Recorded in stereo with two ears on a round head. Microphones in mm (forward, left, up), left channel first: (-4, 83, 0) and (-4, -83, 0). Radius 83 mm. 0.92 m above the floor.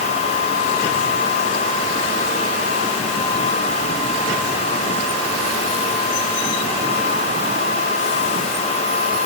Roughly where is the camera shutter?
No camera shutter in this recording.